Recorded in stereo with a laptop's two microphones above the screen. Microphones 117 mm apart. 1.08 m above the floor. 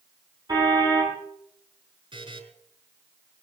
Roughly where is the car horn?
Right.